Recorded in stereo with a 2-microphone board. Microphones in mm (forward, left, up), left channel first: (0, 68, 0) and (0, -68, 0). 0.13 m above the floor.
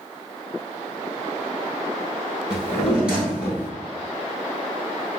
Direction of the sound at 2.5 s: 5° right (ahead or behind).